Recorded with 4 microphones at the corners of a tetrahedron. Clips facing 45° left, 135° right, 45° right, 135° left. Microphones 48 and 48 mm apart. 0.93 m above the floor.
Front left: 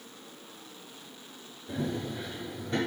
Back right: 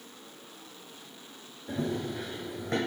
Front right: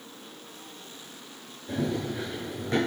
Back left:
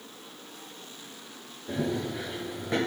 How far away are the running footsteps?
About 2.5 m.